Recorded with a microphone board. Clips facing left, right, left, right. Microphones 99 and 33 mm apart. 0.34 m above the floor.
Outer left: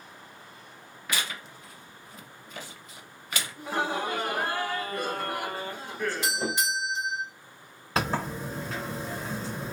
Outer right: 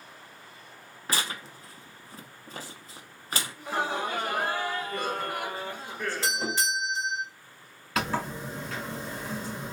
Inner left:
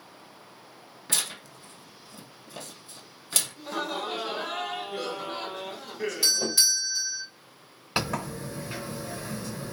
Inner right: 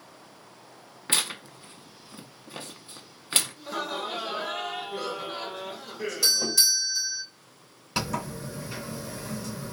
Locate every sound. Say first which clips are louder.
1.1 s tearing paper: outer right 1 dB, inner right 4 dB; 35° right (ahead or behind), 0.5 m
3.6 s laughter: outer left 1 dB, even; centre (ahead or behind), 1.0 m
6.2 s a doorbell: even, inner right 1 dB; 15° left (ahead or behind), 1.5 m
8.0 s a sliding door: outer left 1 dB, inner left 1 dB; 30° left (ahead or behind), 1.5 m